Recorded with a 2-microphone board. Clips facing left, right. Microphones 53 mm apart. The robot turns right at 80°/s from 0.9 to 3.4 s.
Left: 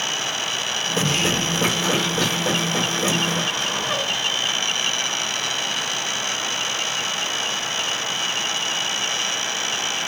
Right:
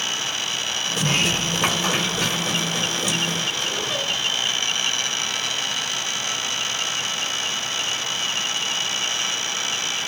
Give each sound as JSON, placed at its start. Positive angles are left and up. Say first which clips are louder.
{"t": 1.0, "sound": "a sliding door", "louder": "even", "azimuth_deg": -130, "distance_m": 2.5}